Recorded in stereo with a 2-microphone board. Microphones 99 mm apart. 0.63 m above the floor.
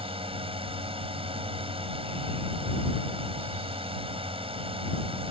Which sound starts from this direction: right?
A drone, at 0.0 s.